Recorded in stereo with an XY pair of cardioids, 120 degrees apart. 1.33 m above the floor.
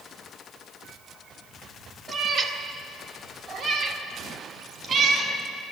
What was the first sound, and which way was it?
A cat meowing, 45° right.